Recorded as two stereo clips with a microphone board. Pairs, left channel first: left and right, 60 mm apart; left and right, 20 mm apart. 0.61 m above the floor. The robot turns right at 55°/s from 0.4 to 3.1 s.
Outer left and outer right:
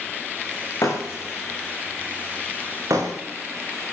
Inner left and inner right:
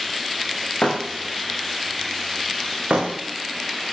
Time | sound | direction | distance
0.8 | breaking glass | 55° left (ahead or behind) | 7.5 m